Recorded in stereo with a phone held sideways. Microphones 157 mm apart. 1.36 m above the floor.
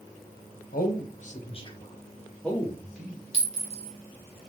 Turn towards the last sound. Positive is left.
turn(degrees=-40)  # may be behind; listen again after turning